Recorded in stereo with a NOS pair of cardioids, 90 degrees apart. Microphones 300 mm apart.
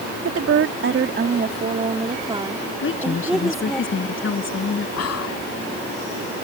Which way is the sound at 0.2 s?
55° right.